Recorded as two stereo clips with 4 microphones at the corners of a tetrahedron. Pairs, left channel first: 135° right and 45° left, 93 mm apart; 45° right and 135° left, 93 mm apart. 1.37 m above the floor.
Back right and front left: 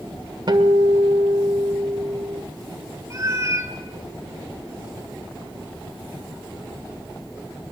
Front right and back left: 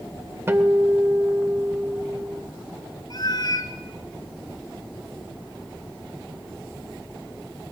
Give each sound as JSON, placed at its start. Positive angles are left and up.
{"t": 0.5, "sound": "a guitar", "azimuth_deg": 75, "distance_m": 1.8}
{"t": 3.1, "sound": "a cat meowing", "azimuth_deg": -10, "distance_m": 2.5}